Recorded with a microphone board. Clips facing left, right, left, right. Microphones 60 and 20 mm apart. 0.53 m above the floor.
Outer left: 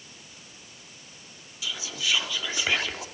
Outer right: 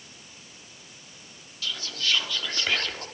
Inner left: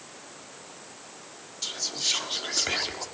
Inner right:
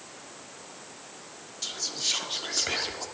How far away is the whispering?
About 1.1 m.